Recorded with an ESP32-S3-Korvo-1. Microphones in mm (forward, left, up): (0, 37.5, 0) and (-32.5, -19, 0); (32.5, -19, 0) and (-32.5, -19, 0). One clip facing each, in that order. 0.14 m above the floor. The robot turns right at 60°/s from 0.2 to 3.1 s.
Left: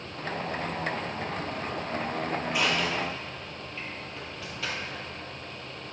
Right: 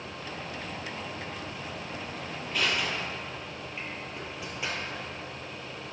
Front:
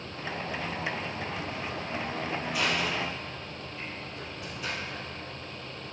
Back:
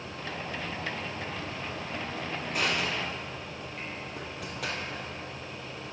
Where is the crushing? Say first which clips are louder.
Even, even; 135° left, 1.8 m; by 5.0 s 170° left, 1.8 m.